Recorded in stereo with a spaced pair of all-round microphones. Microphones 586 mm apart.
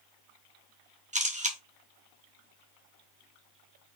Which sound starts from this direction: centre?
A camera shutter, at 1.1 s.